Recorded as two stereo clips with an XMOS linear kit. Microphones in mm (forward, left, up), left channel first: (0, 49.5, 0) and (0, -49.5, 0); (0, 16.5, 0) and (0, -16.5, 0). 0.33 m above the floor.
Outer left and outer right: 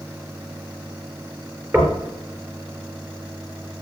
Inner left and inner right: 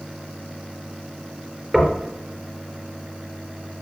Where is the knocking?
25° right (ahead or behind), 3.5 m.